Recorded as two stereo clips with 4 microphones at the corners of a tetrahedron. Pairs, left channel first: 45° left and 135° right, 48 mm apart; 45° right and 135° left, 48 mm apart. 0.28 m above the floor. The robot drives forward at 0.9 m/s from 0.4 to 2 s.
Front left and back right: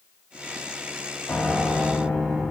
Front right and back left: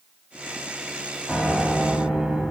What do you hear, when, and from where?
1.3 s a piano: 65° left, 1.7 m; by 2.4 s 100° left, 1.6 m